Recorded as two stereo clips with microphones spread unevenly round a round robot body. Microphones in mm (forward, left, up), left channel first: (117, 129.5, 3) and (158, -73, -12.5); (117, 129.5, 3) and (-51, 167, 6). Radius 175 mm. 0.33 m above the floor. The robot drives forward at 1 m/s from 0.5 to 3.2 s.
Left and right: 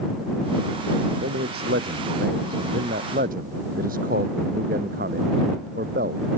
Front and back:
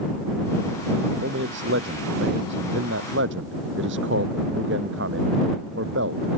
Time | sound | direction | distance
1.2 | a man speaking | 140° right | ?